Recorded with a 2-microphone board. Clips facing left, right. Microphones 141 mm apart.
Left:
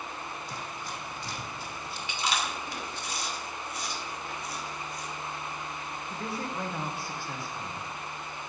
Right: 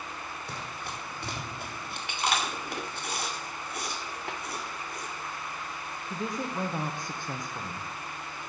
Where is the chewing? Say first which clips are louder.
Right 2 dB; 60° right (ahead or behind), 2 m.